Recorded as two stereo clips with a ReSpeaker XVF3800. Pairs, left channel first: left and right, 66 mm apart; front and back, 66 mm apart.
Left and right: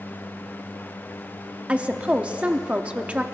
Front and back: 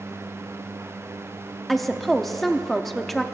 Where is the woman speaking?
85° right, 0.7 m.